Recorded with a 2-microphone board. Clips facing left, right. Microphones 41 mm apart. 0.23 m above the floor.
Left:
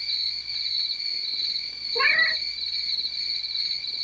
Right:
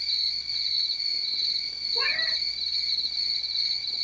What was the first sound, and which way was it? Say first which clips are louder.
An insect: even; 15° left (ahead or behind).